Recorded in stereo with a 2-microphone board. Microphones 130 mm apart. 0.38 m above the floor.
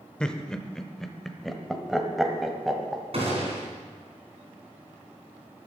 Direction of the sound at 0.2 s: 5° left (ahead or behind).